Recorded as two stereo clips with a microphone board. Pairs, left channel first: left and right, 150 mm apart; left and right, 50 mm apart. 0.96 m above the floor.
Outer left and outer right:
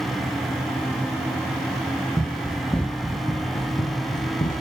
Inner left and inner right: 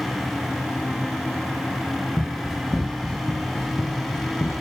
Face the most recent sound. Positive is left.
turn(degrees=65)  # may be behind; listen again after turning